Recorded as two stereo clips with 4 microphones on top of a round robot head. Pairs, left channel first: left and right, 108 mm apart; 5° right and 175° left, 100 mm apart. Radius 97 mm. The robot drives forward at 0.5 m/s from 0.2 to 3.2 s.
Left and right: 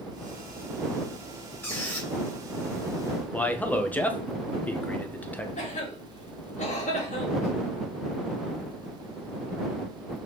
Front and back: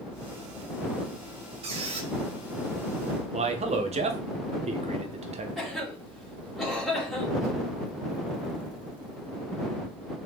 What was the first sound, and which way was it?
A squeak, 160° left.